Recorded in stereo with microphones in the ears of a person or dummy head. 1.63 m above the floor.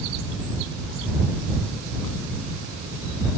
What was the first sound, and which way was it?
Only background noise.